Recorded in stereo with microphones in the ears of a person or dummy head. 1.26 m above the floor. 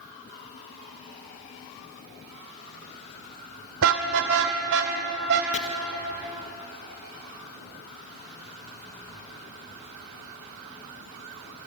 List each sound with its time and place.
3.8 s a car horn: 80° right, 2.5 m; by 5.4 s 65° right (ahead or behind), 4 m
5.5 s chopping: 35° left (ahead or behind), 1.3 m